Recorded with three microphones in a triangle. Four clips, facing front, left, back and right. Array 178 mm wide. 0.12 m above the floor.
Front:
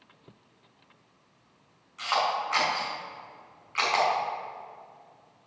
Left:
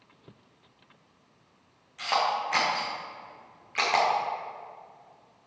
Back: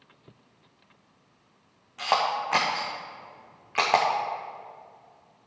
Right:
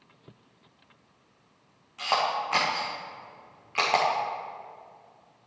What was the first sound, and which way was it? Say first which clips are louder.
A camera shutter: even, back 2 dB; 170° right.